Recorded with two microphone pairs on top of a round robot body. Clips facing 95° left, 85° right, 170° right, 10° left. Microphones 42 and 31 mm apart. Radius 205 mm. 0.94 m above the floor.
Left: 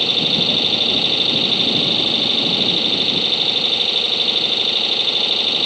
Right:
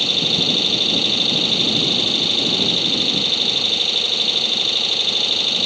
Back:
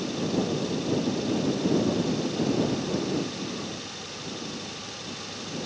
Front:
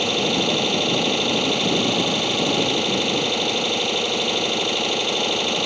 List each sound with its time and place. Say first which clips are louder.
0.0 s an engine running: left 1 dB, front 8 dB; 15° left